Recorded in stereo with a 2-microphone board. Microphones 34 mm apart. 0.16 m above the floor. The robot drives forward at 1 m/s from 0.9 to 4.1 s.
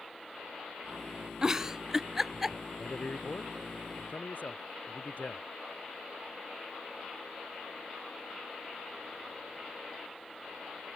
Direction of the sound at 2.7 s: 45° left (ahead or behind).